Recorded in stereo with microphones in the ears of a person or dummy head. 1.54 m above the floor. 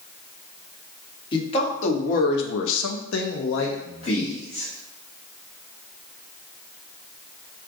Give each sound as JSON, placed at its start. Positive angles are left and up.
{"t": 1.3, "sound": "a man speaking", "side_deg": 30, "distance_m": 1.1}